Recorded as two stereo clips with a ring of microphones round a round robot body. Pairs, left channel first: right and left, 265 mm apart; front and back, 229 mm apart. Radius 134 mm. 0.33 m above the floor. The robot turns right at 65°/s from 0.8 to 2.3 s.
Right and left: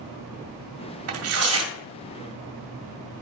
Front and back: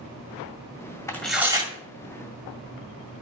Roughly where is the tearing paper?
Left.